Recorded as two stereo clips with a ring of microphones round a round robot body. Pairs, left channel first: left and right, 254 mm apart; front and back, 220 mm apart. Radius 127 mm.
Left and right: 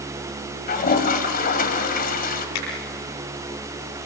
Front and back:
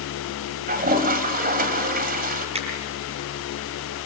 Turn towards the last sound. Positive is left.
turn(degrees=120)